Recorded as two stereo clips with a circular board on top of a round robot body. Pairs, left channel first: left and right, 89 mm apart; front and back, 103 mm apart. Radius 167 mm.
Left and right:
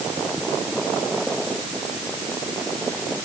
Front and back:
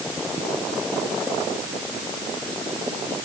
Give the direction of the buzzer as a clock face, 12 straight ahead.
I don't hear a buzzer.